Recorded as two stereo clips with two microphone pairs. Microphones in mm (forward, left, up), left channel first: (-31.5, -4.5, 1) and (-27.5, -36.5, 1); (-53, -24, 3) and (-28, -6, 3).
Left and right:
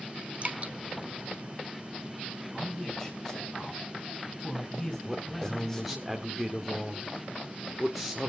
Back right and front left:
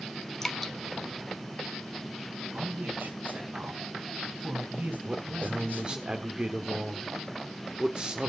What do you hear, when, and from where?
0.4 s dripping: 75° right, 1.1 m
2.5 s a man speaking: 20° left, 3.5 m
5.0 s a man speaking: 5° left, 1.3 m